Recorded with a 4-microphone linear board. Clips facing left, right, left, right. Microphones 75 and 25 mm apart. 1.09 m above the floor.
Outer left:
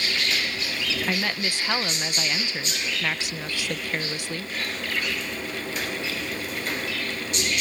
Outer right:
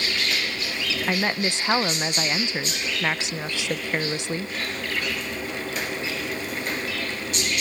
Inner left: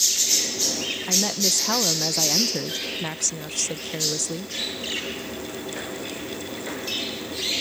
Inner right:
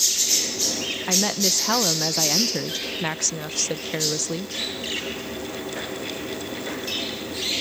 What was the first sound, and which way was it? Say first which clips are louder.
A woman speaking: outer right 5 dB, inner right 1 dB; 20° right (ahead or behind).